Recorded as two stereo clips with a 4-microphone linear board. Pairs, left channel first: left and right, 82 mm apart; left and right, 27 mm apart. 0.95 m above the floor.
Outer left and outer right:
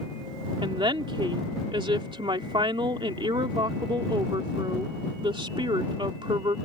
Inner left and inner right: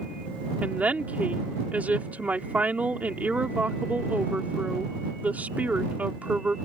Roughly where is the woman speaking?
Right.